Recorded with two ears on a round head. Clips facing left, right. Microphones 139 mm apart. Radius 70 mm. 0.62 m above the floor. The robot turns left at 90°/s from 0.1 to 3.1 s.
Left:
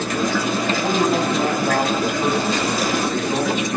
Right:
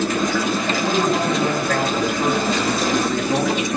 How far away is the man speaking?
About 4 m.